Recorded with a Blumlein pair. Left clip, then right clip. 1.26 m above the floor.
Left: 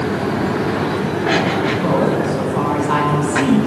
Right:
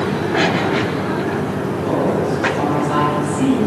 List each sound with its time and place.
1.8 s a woman speaking: 65° left, 2 m